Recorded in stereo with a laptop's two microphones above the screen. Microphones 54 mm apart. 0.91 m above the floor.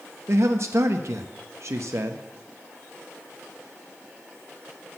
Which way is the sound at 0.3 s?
60° right (ahead or behind).